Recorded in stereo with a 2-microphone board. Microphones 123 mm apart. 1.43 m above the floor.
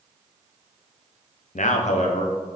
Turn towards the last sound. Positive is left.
turn(degrees=60)  # may be behind; listen again after turning